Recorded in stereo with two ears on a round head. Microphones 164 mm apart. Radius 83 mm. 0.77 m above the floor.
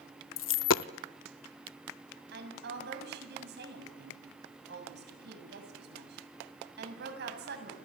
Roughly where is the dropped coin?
Left.